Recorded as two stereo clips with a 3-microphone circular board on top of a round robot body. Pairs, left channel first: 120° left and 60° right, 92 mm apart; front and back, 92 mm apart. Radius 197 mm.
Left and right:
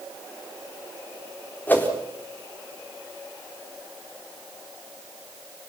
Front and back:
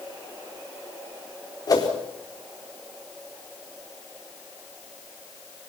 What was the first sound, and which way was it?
A whoosh, 50° left.